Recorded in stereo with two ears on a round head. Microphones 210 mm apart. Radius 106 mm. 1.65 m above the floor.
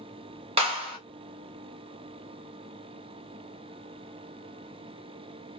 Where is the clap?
25° right (ahead or behind), 1.3 m.